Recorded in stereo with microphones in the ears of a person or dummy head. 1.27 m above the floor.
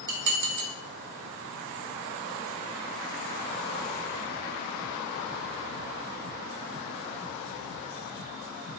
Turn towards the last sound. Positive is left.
turn(degrees=-60)  # may be behind; listen again after turning